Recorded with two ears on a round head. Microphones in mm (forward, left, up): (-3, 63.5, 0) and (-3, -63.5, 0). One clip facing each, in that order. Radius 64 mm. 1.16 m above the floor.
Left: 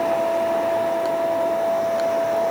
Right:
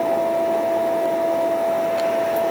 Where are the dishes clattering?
No dishes clattering in this recording.